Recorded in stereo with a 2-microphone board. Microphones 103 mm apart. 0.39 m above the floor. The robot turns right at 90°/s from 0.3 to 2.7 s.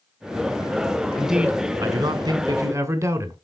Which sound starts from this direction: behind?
A man speaking, at 1.2 s.